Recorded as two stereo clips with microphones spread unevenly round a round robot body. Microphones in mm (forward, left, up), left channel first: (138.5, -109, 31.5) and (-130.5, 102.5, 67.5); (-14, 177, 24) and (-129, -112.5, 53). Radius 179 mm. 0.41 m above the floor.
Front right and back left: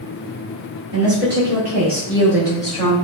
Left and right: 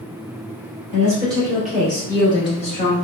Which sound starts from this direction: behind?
A woman speaking, at 0.9 s.